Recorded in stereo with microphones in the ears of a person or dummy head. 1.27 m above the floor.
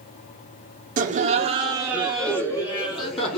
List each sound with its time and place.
1.0 s laughter: 45° right (ahead or behind), 0.8 m; by 3.4 s 35° left (ahead or behind), 0.9 m